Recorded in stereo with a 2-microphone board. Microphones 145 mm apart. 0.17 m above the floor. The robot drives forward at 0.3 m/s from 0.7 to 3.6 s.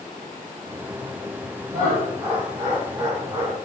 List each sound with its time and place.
1.7 s laughter: 20° right (ahead or behind), 1.6 m